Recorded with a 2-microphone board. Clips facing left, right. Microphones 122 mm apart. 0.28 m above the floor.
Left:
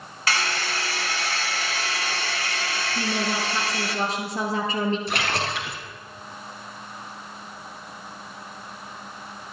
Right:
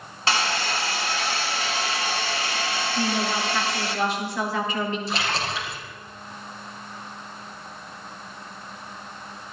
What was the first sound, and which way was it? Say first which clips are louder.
A hair dryer: right 2 dB; 25° right (ahead or behind).